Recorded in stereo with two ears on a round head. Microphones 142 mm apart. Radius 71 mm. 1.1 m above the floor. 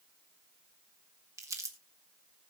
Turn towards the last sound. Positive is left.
turn(degrees=-20)  # may be behind; listen again after turning